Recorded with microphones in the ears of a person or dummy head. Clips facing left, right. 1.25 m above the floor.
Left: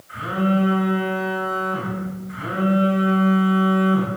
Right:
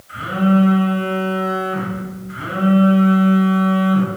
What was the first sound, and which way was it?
A phone buzzing, 40° right (ahead or behind).